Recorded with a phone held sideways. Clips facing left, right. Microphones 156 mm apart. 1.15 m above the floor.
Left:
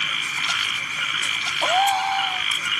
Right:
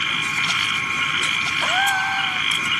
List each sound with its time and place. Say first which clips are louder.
0.0 s a machine running: right 4 dB; 75° right (ahead or behind)
1.6 s a gasp: left 4 dB; 30° left (ahead or behind)